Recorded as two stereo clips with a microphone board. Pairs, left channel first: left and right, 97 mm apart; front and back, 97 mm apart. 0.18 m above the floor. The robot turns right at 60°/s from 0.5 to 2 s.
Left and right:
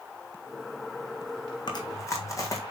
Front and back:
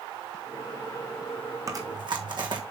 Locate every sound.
1.7 s chewing: 125° left, 1.8 m; by 2.6 s 145° left, 1.8 m